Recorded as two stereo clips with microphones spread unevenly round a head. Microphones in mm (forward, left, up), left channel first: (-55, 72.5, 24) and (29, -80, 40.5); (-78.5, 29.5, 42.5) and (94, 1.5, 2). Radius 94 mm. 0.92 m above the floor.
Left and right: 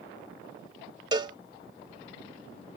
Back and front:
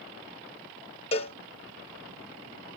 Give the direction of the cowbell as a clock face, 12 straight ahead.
4 o'clock.